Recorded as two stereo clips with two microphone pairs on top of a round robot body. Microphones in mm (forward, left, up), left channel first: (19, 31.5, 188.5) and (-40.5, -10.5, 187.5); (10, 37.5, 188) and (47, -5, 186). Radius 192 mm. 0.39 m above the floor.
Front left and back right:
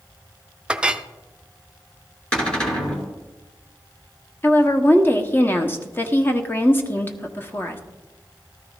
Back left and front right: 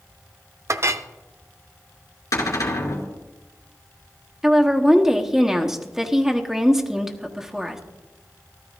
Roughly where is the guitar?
I don't hear a guitar.